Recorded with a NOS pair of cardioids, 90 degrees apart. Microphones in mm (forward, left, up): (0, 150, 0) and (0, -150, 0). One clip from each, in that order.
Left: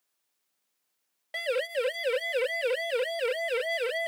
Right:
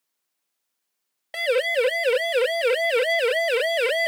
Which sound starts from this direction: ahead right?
A siren, at 1.3 s.